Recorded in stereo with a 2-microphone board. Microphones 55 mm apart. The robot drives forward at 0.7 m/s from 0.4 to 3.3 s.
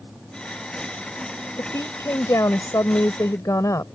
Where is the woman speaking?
60° left (ahead or behind); by 3.9 s 75° left (ahead or behind).